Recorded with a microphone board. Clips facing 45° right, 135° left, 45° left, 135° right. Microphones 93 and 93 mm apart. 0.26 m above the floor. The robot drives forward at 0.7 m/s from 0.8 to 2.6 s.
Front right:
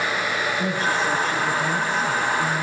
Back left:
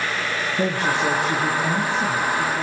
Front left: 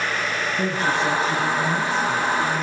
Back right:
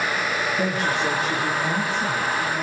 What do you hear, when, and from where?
0.6 s a woman speaking: 135° left, 6.5 m; by 2.6 s 140° left, 7.5 m